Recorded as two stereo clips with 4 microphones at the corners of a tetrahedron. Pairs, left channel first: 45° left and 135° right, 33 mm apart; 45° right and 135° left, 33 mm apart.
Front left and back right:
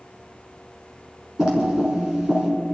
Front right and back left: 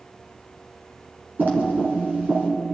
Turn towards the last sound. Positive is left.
turn(degrees=155)